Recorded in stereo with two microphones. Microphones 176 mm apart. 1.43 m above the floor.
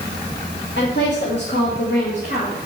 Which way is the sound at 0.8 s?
80° left.